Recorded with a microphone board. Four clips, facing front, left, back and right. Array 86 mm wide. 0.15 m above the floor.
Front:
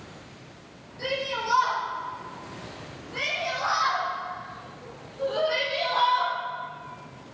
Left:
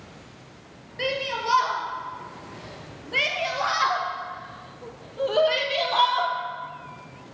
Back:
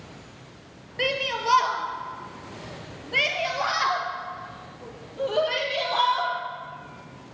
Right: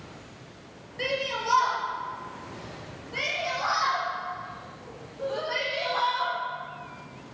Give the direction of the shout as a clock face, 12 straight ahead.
6 o'clock.